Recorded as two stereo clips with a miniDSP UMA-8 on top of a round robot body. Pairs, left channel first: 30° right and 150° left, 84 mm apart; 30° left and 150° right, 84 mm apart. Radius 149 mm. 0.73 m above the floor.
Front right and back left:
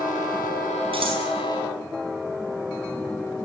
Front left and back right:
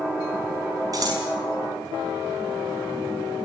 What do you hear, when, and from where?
0.9 s scissors: 165° left, 5.5 m